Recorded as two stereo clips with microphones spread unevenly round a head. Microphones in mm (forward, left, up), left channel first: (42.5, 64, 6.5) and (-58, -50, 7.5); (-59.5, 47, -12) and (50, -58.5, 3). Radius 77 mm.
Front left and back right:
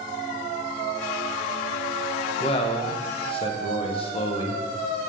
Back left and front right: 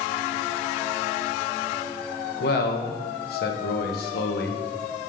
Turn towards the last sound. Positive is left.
turn(degrees=105)